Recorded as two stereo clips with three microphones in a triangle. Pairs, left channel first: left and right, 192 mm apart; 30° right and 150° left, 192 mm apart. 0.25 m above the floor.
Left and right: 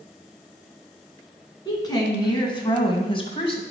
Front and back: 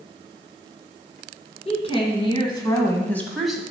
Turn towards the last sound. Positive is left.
turn(degrees=70)